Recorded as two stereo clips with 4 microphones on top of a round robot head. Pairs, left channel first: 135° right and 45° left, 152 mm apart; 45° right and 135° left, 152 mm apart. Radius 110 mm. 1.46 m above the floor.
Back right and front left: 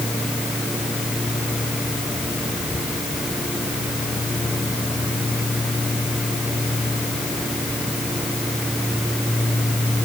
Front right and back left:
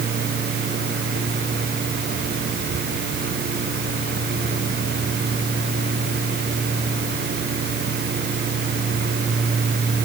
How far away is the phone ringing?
No phone ringing in this recording.